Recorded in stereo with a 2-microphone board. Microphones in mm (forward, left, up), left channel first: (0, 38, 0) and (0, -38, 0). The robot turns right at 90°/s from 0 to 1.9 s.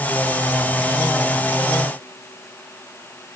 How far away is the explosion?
I don't hear an explosion.